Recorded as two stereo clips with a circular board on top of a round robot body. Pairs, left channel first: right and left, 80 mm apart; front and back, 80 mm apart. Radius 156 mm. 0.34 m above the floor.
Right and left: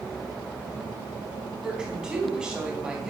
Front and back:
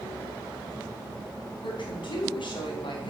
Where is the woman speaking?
10° left, 4 m.